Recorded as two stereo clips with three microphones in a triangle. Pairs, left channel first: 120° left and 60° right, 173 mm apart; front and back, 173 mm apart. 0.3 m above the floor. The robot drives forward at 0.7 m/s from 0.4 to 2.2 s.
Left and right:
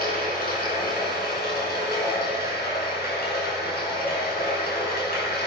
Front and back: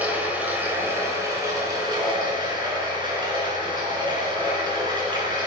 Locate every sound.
0.0 s running water: 100° left, 3.5 m; by 5.5 s 120° left, 4 m